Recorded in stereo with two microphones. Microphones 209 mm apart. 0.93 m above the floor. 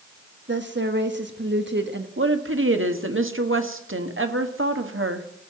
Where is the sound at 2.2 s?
75° right (ahead or behind), 1.4 m.